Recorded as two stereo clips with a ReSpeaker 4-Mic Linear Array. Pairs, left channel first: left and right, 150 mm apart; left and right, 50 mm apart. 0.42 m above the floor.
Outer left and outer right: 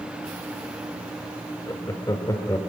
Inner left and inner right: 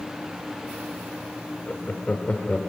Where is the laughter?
25° left (ahead or behind), 1.0 m.